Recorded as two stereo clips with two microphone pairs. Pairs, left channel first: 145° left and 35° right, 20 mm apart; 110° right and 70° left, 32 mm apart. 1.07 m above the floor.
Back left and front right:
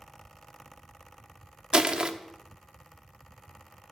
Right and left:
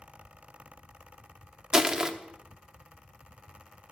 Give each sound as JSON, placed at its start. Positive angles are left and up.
{"t": 1.7, "sound": "crushing", "azimuth_deg": 0, "distance_m": 0.8}